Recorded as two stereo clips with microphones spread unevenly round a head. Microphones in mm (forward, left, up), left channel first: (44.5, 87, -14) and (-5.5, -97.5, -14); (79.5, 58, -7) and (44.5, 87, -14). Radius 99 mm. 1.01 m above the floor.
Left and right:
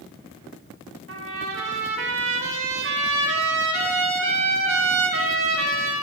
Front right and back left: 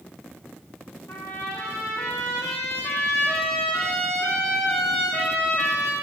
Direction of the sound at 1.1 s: 90° right.